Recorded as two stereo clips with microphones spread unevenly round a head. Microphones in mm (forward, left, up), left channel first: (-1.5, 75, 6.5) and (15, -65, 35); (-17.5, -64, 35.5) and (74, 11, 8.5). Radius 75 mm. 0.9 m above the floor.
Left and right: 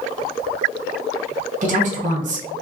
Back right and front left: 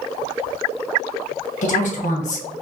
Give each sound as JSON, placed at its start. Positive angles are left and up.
{"t": 1.6, "sound": "a woman speaking", "azimuth_deg": -125, "distance_m": 1.1}